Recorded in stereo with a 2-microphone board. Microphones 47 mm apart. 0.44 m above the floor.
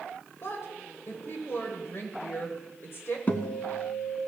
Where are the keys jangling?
I don't hear keys jangling.